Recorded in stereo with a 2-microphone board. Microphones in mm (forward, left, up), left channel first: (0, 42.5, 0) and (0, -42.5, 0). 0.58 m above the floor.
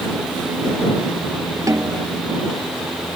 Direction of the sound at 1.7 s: 40° right (ahead or behind).